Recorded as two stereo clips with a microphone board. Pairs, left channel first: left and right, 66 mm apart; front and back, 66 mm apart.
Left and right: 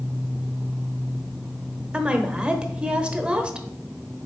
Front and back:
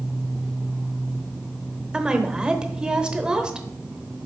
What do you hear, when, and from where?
1.9 s a woman speaking: 130° right, 0.9 m